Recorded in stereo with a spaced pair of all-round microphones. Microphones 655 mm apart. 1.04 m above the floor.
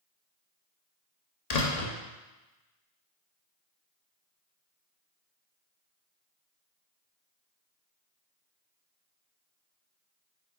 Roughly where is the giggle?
No giggle in this recording.